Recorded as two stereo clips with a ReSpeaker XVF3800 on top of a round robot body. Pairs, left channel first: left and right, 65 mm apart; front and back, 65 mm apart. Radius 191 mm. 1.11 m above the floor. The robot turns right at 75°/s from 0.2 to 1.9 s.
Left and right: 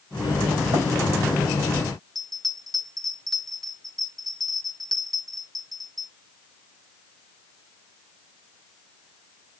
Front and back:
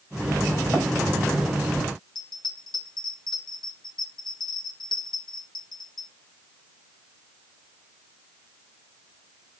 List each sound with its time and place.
0.7 s running footsteps: 95° right, 6 m; by 0.8 s 90° right, 6 m
2.1 s a bell: straight ahead, 2 m